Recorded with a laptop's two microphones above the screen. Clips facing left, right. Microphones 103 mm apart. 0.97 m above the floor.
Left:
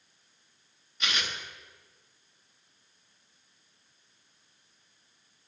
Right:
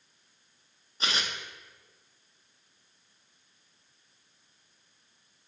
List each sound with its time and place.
1.0 s tearing paper: 35° right (ahead or behind), 0.6 m